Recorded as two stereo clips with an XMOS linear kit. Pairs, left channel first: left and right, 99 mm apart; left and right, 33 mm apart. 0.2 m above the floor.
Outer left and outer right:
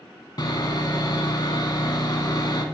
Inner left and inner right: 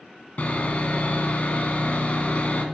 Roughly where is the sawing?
Left.